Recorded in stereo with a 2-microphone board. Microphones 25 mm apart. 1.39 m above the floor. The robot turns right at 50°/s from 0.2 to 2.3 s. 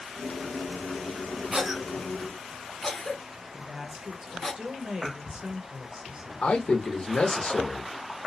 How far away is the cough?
About 0.9 m.